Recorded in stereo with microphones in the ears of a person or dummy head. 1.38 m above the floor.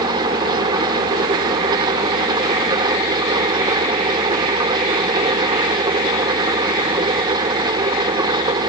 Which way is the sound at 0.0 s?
25° right (ahead or behind).